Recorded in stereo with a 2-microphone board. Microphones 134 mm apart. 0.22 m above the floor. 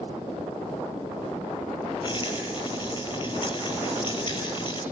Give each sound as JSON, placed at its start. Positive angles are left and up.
{"t": 2.0, "sound": "a rattle", "side_deg": 40, "distance_m": 5.5}